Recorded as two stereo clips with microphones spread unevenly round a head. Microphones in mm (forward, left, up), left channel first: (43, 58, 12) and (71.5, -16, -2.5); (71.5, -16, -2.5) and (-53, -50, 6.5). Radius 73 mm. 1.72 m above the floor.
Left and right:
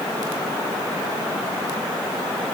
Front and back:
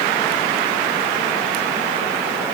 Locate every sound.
Only background noise.